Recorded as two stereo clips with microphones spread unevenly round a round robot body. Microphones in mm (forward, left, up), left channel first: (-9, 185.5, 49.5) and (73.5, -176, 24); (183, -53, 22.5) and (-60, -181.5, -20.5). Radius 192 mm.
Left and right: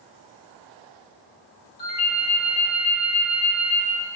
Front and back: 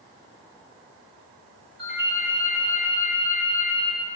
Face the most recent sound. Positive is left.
turn(degrees=140)